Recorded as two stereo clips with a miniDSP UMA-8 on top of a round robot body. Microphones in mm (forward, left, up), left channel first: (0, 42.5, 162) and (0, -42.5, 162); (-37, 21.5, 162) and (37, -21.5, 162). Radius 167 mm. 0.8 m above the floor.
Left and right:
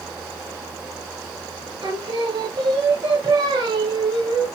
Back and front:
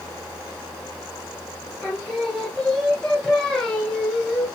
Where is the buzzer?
No buzzer in this recording.